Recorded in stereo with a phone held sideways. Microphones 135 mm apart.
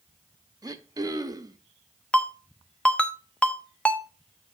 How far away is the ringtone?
About 0.6 m.